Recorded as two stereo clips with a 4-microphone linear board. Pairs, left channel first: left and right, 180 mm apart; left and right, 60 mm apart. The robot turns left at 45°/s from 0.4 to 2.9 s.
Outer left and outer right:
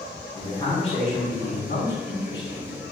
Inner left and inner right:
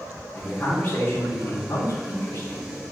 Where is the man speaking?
165° left, 3.5 m; by 2.8 s 60° left, 3.5 m.